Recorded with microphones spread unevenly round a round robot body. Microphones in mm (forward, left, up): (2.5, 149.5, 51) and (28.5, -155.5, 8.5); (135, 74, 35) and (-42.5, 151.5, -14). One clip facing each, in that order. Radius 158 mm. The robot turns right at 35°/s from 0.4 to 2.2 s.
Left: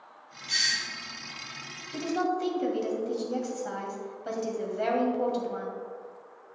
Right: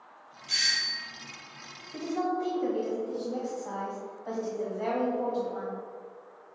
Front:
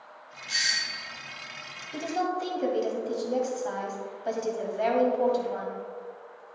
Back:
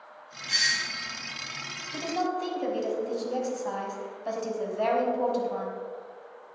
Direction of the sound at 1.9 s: 55° left.